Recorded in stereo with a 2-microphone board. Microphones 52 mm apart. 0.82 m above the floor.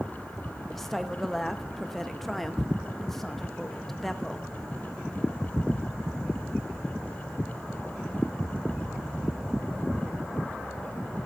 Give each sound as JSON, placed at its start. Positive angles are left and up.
{"t": 0.7, "sound": "a woman speaking", "side_deg": 5, "distance_m": 0.7}